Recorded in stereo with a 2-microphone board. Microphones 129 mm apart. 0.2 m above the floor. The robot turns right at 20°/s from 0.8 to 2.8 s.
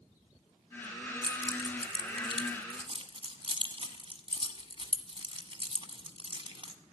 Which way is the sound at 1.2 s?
40° right (ahead or behind).